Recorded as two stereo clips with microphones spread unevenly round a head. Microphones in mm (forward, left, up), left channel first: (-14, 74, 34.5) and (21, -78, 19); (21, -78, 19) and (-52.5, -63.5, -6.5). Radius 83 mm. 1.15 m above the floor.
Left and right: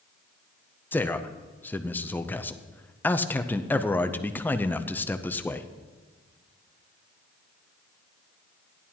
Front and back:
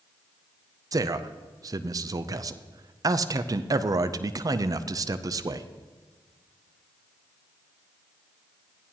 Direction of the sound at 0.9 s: 175° right.